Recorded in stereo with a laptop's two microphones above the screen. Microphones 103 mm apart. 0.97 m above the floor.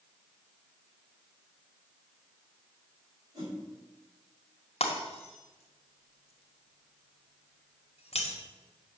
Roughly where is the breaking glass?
Left.